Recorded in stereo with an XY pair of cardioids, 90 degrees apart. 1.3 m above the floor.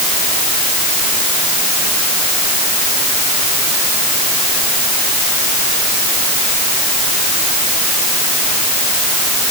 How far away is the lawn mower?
No lawn mower in this recording.